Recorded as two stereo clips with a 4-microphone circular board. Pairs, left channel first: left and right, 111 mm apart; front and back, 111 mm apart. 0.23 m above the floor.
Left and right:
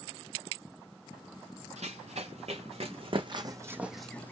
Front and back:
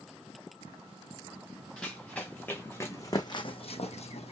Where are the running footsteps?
80° right, 2 m; by 4.3 s 20° left, 0.9 m.